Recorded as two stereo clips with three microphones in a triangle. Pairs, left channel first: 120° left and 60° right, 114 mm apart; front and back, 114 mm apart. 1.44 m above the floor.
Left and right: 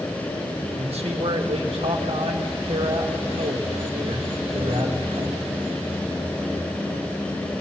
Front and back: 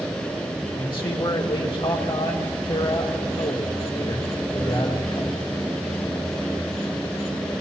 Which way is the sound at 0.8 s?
40° right.